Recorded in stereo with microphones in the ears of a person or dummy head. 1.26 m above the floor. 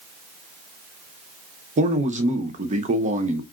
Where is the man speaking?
45° right (ahead or behind), 0.7 m.